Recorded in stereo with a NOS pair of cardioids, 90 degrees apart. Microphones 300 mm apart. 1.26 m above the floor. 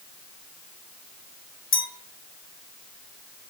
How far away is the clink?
About 1.2 m.